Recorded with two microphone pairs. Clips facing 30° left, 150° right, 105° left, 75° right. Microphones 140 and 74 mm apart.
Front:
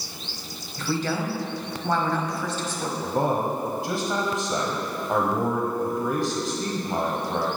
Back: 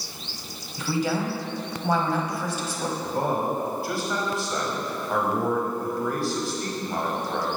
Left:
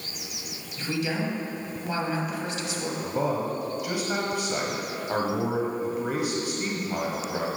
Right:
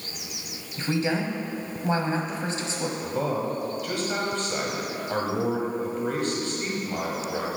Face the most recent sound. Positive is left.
turn(degrees=55)